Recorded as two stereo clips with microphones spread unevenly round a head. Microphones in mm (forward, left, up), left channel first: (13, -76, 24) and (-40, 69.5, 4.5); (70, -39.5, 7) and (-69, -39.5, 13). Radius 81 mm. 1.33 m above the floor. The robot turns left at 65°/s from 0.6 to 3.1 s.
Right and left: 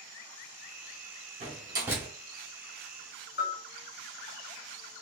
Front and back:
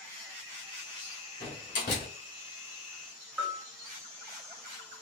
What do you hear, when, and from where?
1.4 s a door slam: 65° left, 2 m; by 2.1 s 20° left, 2 m
3.4 s a bell: 90° right, 1.9 m